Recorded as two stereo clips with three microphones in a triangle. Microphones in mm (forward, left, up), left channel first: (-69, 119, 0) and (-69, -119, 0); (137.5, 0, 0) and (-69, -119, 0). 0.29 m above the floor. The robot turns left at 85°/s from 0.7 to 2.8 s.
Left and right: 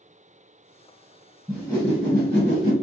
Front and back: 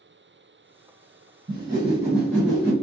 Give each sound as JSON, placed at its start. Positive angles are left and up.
{"t": 1.5, "sound": "a whoosh", "azimuth_deg": -170, "distance_m": 1.7}